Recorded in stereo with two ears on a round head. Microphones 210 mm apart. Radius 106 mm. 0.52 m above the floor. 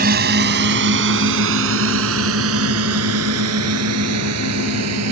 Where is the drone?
40° right (ahead or behind); by 5.1 s 75° right (ahead or behind).